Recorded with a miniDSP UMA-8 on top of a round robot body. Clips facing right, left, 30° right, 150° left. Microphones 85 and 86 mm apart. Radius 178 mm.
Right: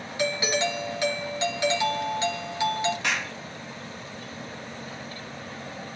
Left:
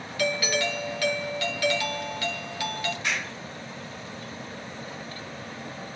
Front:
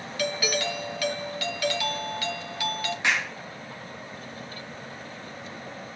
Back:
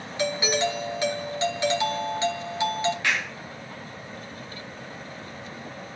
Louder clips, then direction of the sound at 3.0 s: Right 2 dB, front 1 dB; 100° right.